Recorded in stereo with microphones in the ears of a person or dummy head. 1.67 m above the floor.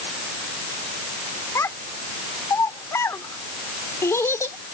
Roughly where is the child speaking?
Centre.